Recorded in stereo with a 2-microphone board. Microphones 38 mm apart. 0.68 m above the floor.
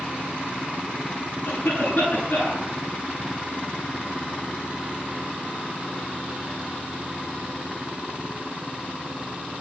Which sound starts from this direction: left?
A cough, at 1.4 s.